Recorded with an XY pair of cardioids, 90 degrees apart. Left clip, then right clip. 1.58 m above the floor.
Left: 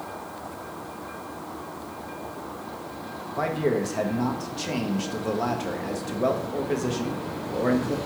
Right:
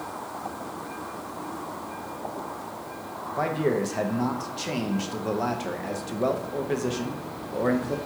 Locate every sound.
3.4 s a man speaking: 5° right, 0.8 m